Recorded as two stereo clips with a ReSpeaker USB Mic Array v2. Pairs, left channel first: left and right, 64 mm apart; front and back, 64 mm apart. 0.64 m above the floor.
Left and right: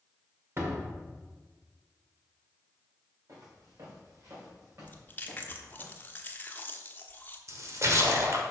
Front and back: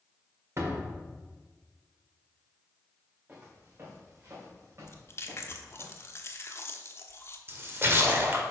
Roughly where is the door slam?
Behind right.